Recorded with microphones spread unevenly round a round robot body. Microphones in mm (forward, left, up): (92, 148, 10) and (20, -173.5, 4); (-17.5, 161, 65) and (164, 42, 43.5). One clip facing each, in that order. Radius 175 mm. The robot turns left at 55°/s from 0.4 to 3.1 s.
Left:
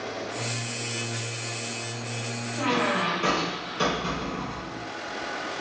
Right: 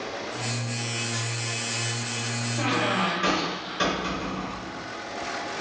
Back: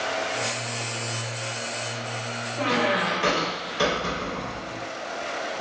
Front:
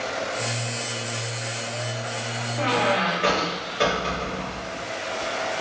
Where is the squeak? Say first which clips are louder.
Left 1 dB, front 1 dB; 170° right, 1.9 m; by 4.8 s 160° left, 1.9 m.